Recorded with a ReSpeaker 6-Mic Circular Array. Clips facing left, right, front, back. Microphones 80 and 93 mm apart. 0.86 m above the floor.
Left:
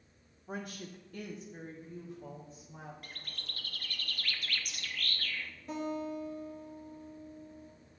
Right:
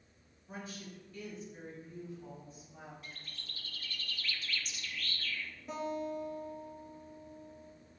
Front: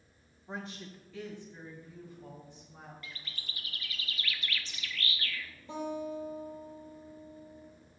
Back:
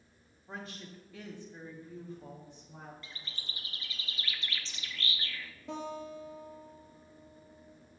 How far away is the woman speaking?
About 1.2 m.